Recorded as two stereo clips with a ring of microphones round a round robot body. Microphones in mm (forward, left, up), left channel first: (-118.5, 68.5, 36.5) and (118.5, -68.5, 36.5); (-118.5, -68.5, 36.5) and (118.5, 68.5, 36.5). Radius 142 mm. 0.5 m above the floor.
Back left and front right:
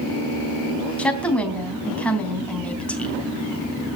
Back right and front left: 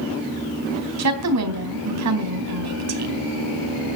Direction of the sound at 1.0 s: 65° left.